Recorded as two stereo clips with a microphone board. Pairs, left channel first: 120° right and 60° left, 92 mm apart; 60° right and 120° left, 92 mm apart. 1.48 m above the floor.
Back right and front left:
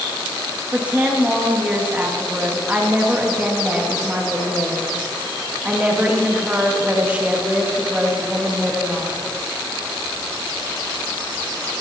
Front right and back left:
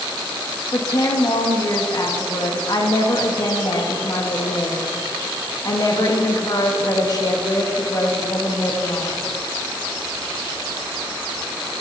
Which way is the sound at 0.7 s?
15° right.